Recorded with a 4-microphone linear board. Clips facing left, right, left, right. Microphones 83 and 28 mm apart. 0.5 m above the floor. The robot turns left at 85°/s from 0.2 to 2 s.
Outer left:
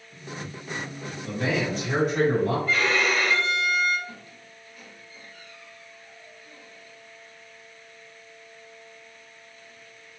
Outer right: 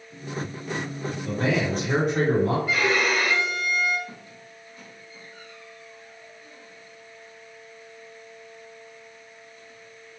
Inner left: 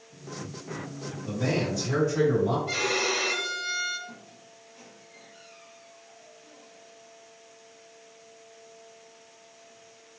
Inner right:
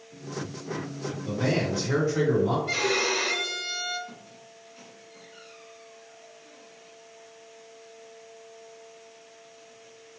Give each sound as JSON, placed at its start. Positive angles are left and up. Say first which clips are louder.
{"t": 1.2, "sound": "a man speaking", "louder": "outer right 2 dB, inner right 1 dB", "azimuth_deg": -55, "distance_m": 1.8}
{"t": 2.7, "sound": "a violin", "louder": "outer right 1 dB, inner right 1 dB", "side_deg": -10, "distance_m": 0.5}
{"t": 4.1, "sound": "a squeak", "louder": "outer right 1 dB, inner right 1 dB", "side_deg": -35, "distance_m": 0.7}